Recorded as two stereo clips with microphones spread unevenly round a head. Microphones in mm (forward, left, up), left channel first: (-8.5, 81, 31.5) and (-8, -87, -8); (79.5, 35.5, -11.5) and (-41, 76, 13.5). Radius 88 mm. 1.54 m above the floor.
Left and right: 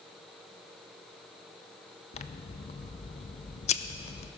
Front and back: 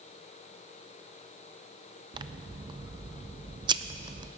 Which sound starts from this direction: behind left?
Scissors, at 2.1 s.